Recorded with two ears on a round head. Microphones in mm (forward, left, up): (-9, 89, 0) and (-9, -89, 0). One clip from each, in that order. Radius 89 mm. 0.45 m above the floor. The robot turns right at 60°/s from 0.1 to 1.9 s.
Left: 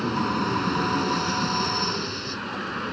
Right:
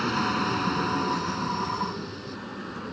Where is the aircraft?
40° right (ahead or behind); by 2.9 s 50° left (ahead or behind).